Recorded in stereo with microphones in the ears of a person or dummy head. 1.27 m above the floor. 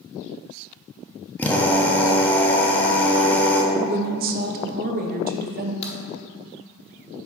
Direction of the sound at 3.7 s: 50° right (ahead or behind).